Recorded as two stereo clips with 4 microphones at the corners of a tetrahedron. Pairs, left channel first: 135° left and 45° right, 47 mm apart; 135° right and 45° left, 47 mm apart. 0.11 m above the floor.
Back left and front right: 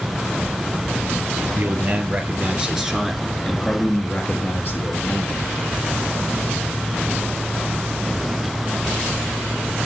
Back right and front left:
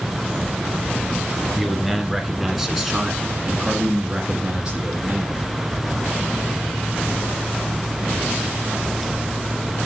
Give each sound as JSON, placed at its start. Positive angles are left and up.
{"t": 1.6, "sound": "a man speaking", "azimuth_deg": -50, "distance_m": 2.0}